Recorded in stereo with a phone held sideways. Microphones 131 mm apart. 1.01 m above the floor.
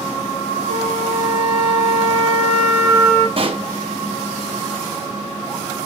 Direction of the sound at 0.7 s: 60° right (ahead or behind).